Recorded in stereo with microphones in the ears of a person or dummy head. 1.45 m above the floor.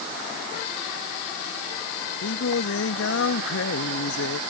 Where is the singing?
80° left.